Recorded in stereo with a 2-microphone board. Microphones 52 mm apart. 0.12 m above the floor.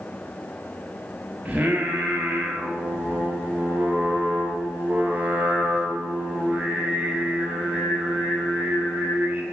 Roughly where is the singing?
Right.